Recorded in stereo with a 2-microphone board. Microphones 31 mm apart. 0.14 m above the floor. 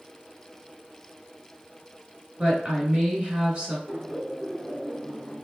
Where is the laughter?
10° left (ahead or behind), 1.6 m.